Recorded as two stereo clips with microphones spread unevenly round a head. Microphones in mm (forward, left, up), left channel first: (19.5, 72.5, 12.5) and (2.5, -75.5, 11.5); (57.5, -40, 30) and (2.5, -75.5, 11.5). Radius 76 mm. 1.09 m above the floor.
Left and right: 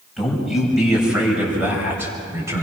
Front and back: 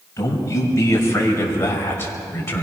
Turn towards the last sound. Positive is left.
turn(degrees=-25)